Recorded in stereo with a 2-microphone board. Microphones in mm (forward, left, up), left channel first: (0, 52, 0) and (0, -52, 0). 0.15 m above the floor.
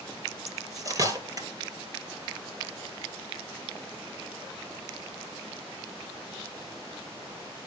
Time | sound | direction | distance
0.5 | cutlery clinking | 35° right (ahead or behind) | 2.5 m